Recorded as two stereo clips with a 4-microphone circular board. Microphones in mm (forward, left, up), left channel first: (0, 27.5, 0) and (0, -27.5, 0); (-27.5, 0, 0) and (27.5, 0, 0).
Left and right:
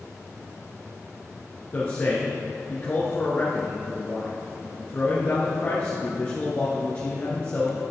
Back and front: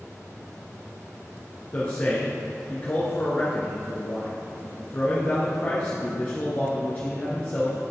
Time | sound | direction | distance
1.7 | a man speaking | 135° left | 1.4 m